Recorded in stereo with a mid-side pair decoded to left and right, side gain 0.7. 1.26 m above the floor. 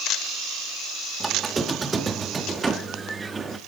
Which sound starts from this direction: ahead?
A squeak, at 1.2 s.